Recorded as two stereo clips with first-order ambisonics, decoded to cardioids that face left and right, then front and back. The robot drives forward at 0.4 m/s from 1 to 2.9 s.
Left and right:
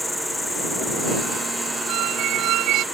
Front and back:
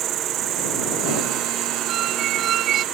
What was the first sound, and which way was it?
An insect, 170° left.